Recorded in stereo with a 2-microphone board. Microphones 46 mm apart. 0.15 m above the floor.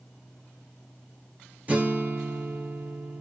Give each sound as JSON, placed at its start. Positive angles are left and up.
{"t": 1.7, "sound": "a guitar", "side_deg": -35, "distance_m": 3.0}